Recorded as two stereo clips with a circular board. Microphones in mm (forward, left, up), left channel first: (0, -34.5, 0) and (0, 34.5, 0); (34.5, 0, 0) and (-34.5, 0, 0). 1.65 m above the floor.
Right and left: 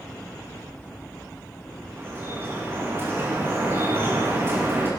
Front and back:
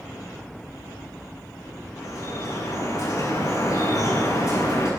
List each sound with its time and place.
2.0 s dripping: 35° left, 8 m